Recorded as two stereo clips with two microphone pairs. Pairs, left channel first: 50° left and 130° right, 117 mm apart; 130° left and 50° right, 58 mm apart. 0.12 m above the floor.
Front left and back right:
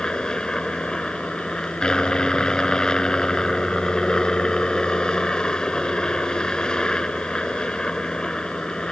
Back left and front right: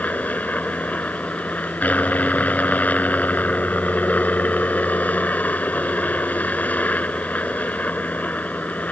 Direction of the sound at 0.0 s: 125° left.